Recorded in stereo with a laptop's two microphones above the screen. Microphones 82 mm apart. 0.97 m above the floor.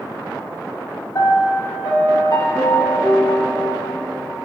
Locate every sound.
1.1 s a piano: 50° left (ahead or behind), 1.1 m